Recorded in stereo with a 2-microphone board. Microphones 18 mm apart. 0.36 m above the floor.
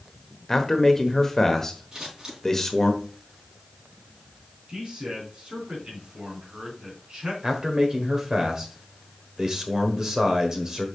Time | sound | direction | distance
0.5 | a man speaking | 20° left (ahead or behind) | 1.1 m
1.9 | scissors | 40° right (ahead or behind) | 4.5 m
4.7 | a man speaking | 50° right (ahead or behind) | 3.5 m
7.4 | a man speaking | 30° right (ahead or behind) | 1.5 m